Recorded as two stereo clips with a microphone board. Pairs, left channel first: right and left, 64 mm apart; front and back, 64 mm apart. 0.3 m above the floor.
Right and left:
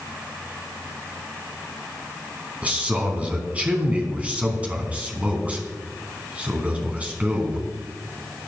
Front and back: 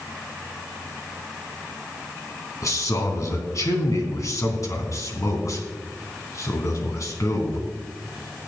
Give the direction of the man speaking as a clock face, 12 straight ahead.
11 o'clock.